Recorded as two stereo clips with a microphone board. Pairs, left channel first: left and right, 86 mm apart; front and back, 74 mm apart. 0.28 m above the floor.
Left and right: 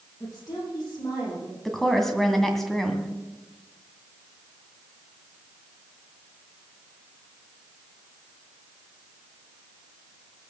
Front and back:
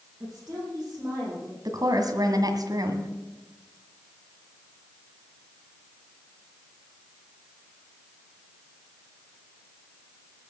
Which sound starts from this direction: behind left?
A woman speaking, at 0.2 s.